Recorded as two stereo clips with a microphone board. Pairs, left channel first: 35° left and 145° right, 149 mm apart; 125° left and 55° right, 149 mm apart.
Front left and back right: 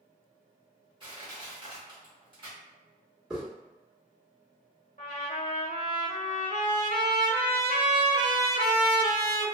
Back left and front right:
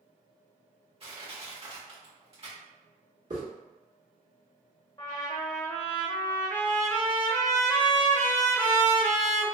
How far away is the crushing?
About 1.4 m.